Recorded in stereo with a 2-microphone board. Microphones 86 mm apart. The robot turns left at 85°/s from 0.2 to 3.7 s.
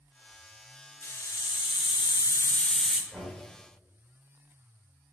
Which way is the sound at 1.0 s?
155° left.